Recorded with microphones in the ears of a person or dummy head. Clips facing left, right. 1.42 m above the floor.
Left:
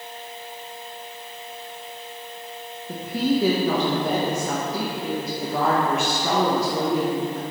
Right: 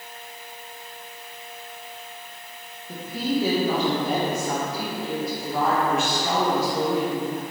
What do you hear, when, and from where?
2.9 s a woman speaking: 55° left (ahead or behind), 1.0 m